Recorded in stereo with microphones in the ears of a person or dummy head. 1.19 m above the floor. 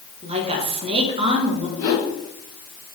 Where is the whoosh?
20° left (ahead or behind), 2.5 m.